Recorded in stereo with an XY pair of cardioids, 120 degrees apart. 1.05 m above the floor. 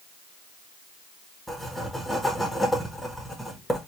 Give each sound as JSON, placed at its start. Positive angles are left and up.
{"t": 1.5, "sound": "writing", "azimuth_deg": 0, "distance_m": 1.2}